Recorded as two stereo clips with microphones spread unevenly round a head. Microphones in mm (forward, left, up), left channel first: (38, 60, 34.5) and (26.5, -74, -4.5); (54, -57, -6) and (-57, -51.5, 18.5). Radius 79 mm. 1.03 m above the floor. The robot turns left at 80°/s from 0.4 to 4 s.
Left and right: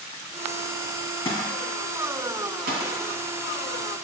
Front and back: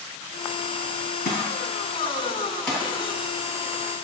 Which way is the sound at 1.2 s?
25° left.